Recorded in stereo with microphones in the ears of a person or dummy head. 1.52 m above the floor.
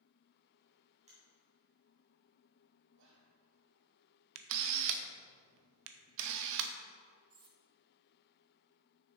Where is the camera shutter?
70° right (ahead or behind), 0.6 m.